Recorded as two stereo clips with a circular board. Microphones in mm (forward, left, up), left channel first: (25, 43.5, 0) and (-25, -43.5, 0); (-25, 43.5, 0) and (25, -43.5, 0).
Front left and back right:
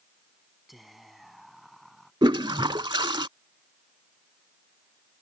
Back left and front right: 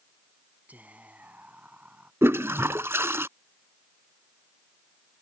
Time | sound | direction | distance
0.7 | whispering | 30° right | ?
2.2 | a toilet flushing | 115° right | ?